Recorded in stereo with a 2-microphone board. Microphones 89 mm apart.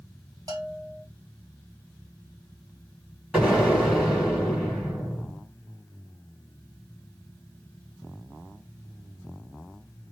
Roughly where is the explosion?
Centre.